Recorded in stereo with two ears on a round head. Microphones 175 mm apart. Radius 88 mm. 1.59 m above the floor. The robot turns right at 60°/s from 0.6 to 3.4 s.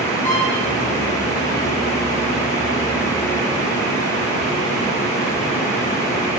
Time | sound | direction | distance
0.2 | a violin | 15° left (ahead or behind) | 2 m